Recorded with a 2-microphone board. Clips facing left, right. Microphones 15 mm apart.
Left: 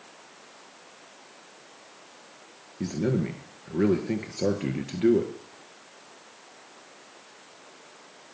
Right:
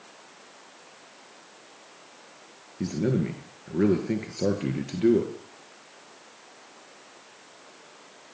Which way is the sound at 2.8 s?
5° left (ahead or behind).